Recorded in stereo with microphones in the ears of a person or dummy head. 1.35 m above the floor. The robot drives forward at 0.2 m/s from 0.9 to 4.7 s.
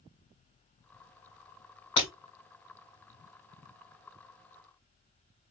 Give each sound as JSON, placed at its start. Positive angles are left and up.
{"t": 2.0, "sound": "breaking glass", "side_deg": 25, "distance_m": 1.3}